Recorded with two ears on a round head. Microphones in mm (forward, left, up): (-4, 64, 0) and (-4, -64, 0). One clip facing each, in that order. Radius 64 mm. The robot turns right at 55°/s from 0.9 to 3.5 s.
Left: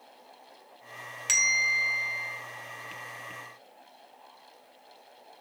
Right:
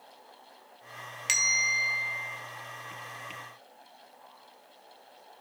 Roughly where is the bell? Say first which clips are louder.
Left 2 dB; ahead.